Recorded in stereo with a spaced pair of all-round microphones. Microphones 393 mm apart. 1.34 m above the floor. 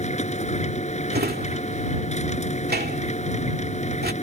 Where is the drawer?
25° right (ahead or behind).